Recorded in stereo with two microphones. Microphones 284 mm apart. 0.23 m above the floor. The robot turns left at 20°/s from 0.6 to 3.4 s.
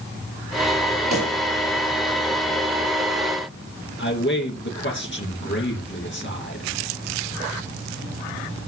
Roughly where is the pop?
Right.